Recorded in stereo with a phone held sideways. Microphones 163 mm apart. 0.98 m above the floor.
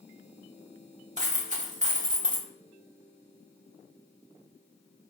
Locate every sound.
1.2 s a dropped coin: 50° right (ahead or behind), 1.3 m